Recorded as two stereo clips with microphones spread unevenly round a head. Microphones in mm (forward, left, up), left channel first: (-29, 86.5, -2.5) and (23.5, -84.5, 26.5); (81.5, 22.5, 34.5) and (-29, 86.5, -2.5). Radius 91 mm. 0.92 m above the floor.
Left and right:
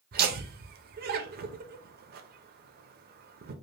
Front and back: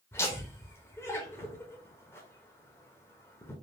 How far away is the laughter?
About 0.6 m.